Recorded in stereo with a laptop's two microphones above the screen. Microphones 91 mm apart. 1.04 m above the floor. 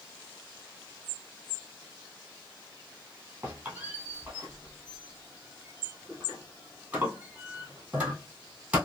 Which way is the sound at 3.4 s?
15° right (ahead or behind).